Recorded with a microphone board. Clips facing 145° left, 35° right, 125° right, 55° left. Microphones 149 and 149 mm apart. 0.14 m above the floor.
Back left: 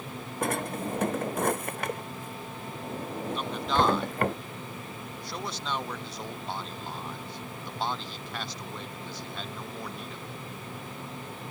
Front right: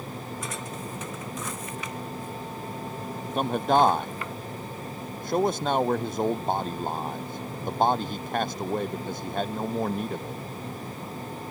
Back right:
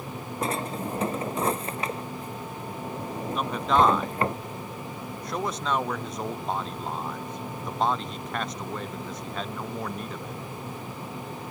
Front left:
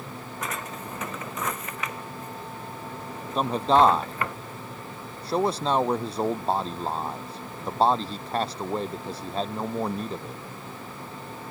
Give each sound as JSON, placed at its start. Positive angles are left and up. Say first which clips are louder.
{"t": 0.4, "sound": "a drawer", "louder": "back left 5 dB, back right 7 dB", "azimuth_deg": 180}
{"t": 3.4, "sound": "a man speaking", "louder": "front right 7 dB, front left 3 dB", "azimuth_deg": 0}